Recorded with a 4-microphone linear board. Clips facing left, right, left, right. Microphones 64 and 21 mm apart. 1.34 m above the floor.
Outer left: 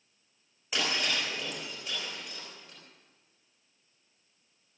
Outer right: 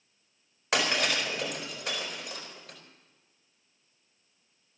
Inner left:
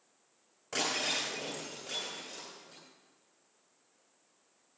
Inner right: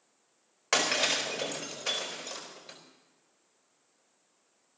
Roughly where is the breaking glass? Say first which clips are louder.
Outer right 4 dB, inner right 5 dB; right.